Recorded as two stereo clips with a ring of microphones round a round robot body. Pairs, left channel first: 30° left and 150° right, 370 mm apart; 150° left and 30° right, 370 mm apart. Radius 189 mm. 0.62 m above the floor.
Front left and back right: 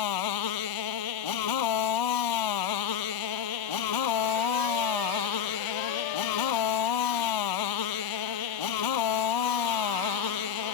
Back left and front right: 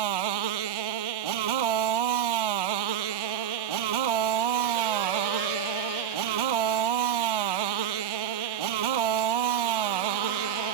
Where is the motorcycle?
5° right.